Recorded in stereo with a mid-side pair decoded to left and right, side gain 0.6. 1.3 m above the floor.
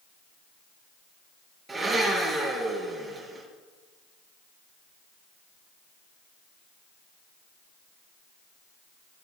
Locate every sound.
1.7 s a blender: 20° right, 5.5 m